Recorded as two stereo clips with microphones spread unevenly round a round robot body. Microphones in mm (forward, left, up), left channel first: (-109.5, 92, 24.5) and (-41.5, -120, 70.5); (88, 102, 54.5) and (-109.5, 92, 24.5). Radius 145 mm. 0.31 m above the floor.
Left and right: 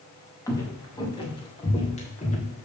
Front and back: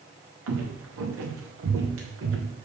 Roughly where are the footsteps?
Behind.